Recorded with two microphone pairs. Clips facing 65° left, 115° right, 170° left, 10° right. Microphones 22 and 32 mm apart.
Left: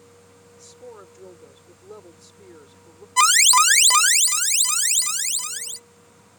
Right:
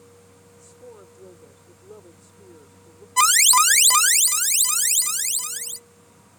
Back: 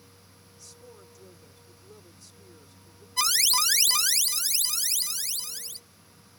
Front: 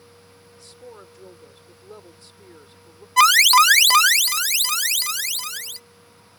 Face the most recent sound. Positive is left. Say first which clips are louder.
# left 1 dB, front 13 dB
turn(degrees=-15)